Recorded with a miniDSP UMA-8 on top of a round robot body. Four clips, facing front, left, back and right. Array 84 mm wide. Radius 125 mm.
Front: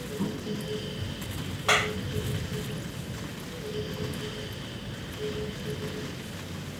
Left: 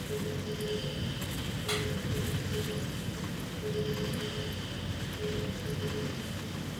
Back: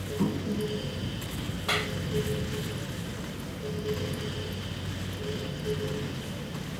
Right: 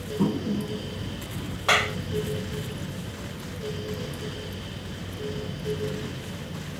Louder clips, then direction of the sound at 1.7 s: Right 11 dB, front 6 dB; 65° right.